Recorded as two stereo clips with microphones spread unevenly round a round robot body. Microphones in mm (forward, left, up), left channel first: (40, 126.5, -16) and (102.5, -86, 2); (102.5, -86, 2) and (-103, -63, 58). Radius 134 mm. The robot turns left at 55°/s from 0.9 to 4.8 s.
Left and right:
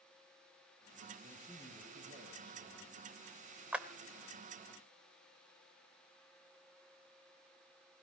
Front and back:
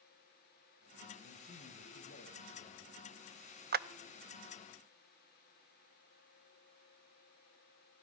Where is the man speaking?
25° left, 3 m; by 3.6 s 105° right, 3 m.